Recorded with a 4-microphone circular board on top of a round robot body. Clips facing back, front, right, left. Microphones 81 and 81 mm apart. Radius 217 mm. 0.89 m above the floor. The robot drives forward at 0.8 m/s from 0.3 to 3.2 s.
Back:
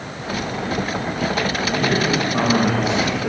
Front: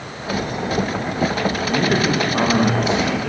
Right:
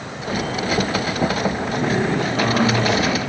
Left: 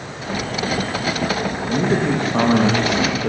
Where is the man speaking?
60° left, 1.9 m; by 3.3 s 105° left, 1.7 m.